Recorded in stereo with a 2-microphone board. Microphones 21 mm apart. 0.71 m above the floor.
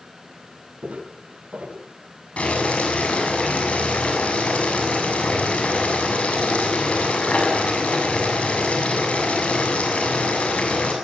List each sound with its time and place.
0.8 s footsteps: 75° right (ahead or behind), 6.5 m
2.4 s boiling: 80° left, 7 m